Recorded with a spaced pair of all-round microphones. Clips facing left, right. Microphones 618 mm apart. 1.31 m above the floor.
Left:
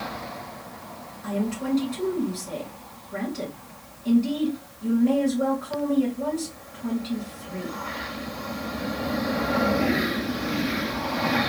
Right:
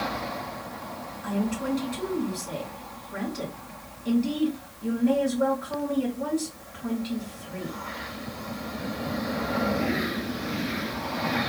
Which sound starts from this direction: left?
A woman speaking, at 1.2 s.